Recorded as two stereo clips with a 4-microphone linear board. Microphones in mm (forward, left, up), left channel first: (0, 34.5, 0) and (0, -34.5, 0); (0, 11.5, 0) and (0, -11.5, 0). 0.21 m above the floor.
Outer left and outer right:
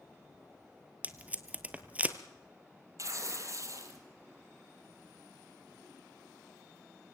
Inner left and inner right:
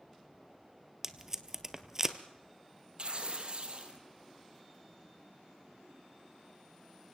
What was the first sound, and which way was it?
Tape being pulled, 20° right (ahead or behind).